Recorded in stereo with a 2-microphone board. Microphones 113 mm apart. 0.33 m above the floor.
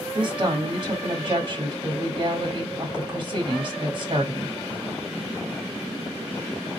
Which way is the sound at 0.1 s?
40° right (ahead or behind).